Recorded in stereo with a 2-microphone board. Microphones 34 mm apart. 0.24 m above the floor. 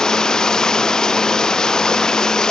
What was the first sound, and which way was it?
Running water, 20° left (ahead or behind).